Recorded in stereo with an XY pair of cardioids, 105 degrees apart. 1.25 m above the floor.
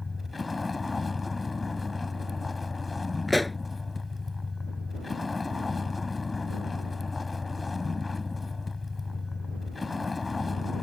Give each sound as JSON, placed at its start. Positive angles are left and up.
{"t": 0.0, "sound": "a vehicle", "azimuth_deg": 25}
{"t": 3.3, "sound": "a pop", "azimuth_deg": 10}